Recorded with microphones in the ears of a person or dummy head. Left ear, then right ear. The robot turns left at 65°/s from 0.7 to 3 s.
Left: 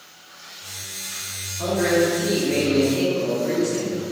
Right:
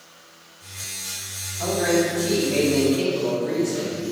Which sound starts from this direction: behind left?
A man speaking, at 1.6 s.